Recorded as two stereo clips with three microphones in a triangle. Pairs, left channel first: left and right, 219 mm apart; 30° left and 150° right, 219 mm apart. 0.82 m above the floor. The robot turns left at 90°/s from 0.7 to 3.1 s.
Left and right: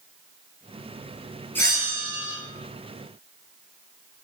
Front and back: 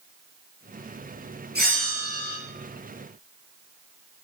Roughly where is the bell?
Behind.